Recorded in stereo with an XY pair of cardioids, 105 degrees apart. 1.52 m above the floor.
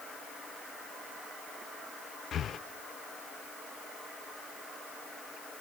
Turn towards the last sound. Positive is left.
turn(degrees=50)